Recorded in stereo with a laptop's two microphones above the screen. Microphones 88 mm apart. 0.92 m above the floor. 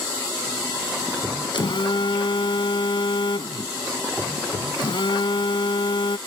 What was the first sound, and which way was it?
A phone buzzing, 65° left (ahead or behind).